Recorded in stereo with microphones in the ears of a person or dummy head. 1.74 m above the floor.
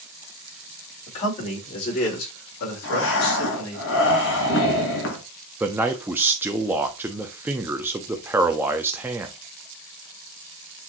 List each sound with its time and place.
1.1 s a man speaking: 35° left (ahead or behind), 2.5 m; by 3.8 s 65° left (ahead or behind), 3 m
2.8 s breathing: 65° left (ahead or behind), 1.9 m
5.6 s a man speaking: 15° right (ahead or behind), 0.6 m